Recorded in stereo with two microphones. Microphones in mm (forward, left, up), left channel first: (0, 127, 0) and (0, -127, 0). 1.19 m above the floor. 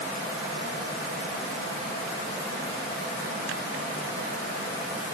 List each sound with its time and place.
Only background noise.